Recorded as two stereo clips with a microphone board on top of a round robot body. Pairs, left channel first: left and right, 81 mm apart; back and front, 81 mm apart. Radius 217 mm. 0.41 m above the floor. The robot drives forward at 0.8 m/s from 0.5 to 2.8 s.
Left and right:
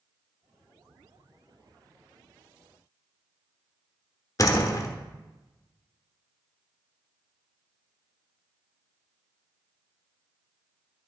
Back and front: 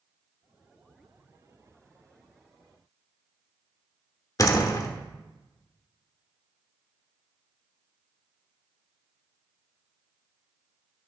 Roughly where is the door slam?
Behind left.